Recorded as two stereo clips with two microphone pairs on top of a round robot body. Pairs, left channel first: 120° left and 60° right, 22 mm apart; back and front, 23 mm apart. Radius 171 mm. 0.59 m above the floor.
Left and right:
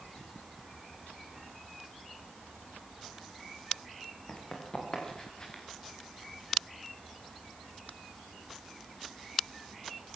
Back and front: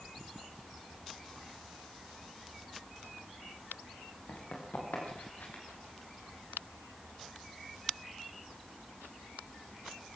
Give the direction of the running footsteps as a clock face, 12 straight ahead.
6 o'clock.